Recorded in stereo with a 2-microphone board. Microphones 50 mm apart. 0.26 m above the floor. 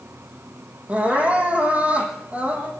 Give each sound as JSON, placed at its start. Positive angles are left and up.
{"t": 0.9, "sound": "crying", "side_deg": -30, "distance_m": 5.5}